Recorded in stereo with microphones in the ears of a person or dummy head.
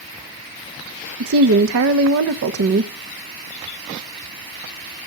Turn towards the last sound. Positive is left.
turn(degrees=-80)